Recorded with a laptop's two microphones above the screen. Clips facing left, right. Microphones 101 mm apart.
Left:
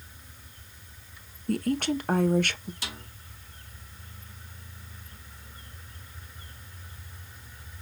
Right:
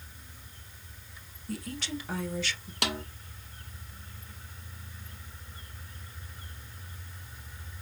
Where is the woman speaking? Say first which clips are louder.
Left 10 dB; 50° left (ahead or behind), 0.6 m.